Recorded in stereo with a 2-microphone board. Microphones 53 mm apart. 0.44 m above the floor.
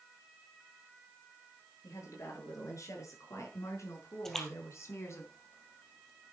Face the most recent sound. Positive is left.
turn(degrees=5)  # may be behind; listen again after turning